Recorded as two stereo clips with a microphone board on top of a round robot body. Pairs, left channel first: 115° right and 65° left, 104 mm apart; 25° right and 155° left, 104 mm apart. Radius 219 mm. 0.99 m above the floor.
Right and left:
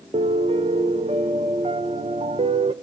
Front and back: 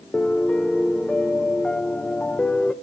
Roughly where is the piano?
Ahead left.